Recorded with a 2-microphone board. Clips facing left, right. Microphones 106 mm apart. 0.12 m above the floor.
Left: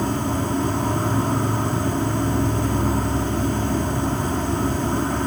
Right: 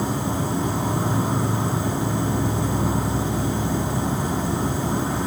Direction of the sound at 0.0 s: 10° right (ahead or behind).